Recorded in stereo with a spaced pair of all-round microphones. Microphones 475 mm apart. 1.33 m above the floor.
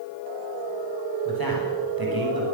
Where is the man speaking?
50° right (ahead or behind), 9.5 m.